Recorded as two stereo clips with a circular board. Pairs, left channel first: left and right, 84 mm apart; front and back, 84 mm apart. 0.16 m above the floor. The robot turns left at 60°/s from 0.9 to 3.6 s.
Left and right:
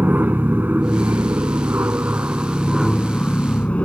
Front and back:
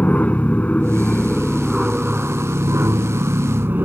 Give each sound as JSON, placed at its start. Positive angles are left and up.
{"t": 0.0, "sound": "an aircraft", "azimuth_deg": -50}